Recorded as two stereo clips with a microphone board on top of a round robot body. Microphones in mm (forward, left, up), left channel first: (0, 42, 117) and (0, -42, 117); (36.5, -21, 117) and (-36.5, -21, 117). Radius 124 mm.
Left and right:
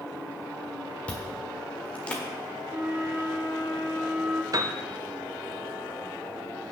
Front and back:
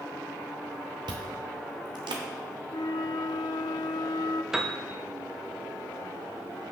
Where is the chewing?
165° left, 1.2 m.